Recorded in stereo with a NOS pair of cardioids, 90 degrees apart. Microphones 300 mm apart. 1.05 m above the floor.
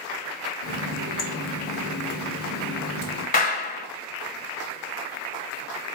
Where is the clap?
30° left, 0.9 m.